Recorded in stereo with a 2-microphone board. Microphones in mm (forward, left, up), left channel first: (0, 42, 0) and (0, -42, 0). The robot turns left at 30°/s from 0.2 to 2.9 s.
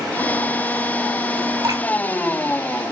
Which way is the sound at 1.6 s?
50° right (ahead or behind).